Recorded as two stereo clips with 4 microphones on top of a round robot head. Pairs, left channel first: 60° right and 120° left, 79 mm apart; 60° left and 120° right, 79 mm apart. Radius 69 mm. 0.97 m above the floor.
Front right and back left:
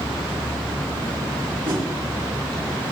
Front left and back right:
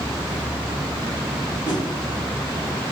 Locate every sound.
1.6 s a whoosh: 90° left, 3.5 m